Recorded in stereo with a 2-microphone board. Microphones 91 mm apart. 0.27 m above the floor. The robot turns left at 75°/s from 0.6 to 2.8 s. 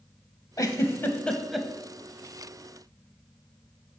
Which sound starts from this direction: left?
A giggle, at 0.6 s.